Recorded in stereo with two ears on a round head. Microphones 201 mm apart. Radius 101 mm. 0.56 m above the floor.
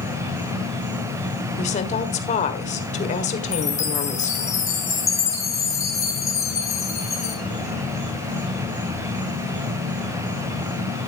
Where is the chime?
15° left (ahead or behind), 2.5 m.